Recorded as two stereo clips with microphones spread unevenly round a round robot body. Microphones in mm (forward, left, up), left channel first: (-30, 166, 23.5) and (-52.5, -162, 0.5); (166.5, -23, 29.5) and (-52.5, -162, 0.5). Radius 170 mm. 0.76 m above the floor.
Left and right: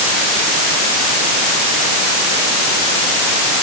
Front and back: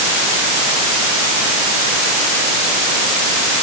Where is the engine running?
I don't hear an engine running.